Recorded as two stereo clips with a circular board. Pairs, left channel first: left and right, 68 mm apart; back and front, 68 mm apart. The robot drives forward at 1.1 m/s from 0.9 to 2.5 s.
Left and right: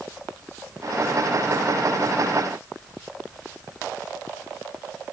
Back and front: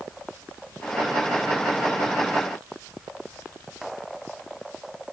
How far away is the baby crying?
No baby crying in this recording.